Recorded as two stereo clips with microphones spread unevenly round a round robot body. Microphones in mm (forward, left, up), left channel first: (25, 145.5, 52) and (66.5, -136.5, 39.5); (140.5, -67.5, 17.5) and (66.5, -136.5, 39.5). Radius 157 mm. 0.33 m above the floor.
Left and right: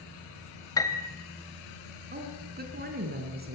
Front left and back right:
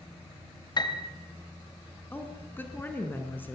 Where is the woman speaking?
25° right, 4 m.